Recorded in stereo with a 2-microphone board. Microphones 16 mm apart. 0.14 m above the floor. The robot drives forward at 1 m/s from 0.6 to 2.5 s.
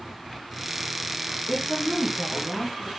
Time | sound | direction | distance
1.5 | a woman speaking | 40° left (ahead or behind) | 3.5 m